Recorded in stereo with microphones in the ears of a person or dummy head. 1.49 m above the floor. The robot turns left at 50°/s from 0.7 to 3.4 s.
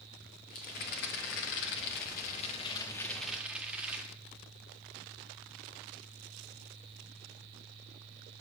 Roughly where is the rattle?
Behind left.